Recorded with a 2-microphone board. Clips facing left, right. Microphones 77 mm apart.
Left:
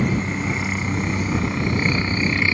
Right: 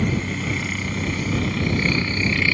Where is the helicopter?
20° left (ahead or behind).